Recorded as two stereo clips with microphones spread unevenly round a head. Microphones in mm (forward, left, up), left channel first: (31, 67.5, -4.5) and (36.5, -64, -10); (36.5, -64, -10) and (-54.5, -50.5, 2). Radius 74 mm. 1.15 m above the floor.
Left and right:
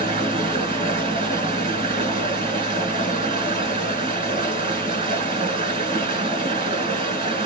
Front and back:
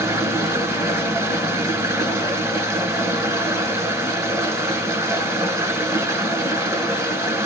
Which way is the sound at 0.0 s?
135° right.